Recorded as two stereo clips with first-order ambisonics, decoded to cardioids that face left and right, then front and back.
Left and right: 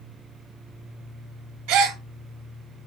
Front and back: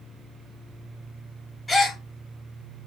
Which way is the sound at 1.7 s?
85° right.